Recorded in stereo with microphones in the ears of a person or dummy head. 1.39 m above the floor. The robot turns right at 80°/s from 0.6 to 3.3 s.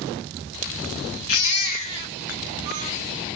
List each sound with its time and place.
1.3 s a baby crying: 105° left, 0.7 m; by 2.9 s 125° right, 0.7 m